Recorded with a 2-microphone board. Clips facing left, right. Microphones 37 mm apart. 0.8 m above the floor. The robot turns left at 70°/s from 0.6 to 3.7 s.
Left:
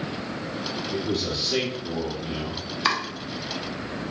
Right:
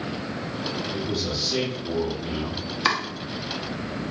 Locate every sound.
0.9 s a man speaking: 70° left, 1.5 m; by 2.6 s 50° right, 1.5 m
2.9 s chopping: centre (ahead or behind), 0.7 m; by 3.0 s 10° right (ahead or behind), 0.7 m